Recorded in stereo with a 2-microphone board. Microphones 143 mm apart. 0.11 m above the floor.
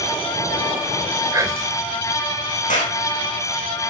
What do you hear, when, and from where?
1.3 s whispering: 25° right (ahead or behind), 1.4 m
2.7 s a clap: 65° left (ahead or behind), 5.5 m